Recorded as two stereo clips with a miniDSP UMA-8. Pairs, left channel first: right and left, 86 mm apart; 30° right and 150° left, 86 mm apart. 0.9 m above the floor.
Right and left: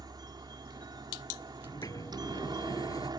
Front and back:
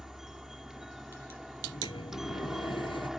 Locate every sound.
0.0 s a helicopter: 65° left
1.6 s a sliding door: 50° right